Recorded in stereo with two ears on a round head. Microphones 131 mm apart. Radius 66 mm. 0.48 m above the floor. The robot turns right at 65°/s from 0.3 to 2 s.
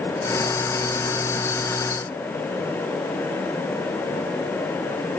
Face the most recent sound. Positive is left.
No sound to turn to.